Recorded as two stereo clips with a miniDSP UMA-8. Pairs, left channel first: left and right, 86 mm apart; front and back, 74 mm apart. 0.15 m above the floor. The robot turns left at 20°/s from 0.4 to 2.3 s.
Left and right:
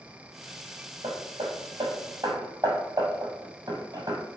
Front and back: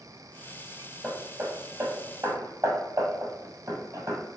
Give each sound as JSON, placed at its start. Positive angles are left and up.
{"t": 1.0, "sound": "hammering", "azimuth_deg": -110, "distance_m": 1.9}